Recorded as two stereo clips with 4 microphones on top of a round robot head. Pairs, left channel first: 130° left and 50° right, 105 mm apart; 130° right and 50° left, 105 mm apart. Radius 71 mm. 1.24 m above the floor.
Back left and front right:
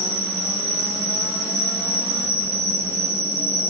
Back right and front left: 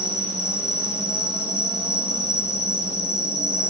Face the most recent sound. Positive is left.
turn(degrees=-105)